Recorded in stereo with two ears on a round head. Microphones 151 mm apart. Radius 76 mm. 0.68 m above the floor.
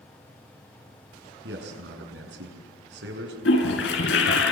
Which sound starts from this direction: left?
A toilet flushing, at 3.5 s.